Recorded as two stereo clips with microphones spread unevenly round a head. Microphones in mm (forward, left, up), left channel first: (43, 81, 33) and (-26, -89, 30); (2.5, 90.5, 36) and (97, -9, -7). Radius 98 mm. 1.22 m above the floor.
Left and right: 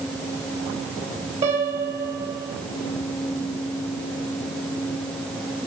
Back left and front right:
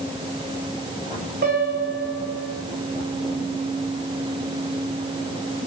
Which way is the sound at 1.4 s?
55° right.